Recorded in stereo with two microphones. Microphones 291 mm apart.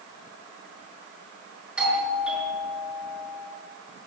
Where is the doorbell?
5° right (ahead or behind), 6 m.